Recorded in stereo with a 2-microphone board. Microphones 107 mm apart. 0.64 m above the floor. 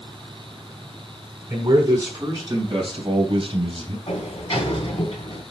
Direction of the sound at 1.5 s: 30° right (ahead or behind).